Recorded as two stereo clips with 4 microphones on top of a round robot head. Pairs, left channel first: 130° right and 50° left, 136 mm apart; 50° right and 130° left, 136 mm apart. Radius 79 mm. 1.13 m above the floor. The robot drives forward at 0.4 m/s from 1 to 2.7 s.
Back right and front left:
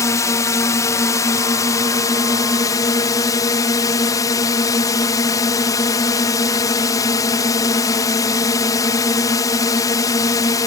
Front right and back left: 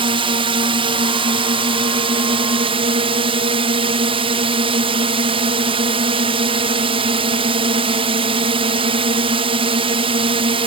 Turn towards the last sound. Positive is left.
turn(degrees=170)